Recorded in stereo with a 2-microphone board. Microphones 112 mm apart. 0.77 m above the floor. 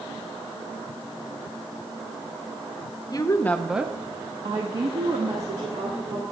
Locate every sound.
3.1 s a woman speaking: 40° left (ahead or behind), 0.8 m; by 6.2 s 75° right (ahead or behind), 2 m